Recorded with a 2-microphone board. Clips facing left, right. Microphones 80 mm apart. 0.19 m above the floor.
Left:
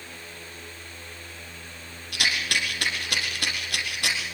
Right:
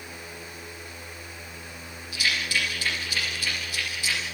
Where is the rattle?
60° left (ahead or behind), 7.5 m.